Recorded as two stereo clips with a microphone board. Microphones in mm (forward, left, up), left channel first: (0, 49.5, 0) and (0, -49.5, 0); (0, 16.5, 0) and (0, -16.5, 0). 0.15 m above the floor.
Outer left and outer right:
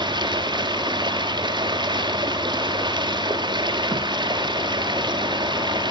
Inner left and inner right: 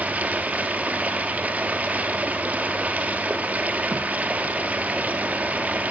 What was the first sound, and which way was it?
Running water, 45° right (ahead or behind).